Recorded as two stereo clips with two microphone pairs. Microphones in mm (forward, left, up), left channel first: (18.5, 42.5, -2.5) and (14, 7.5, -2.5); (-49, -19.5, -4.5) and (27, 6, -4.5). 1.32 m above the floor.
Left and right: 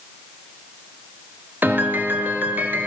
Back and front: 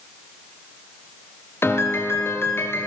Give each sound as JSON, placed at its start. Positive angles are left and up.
{"t": 1.6, "sound": "a piano", "azimuth_deg": -105, "distance_m": 3.0}